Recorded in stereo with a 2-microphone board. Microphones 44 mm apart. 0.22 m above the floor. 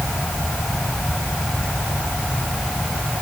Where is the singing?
I don't hear singing.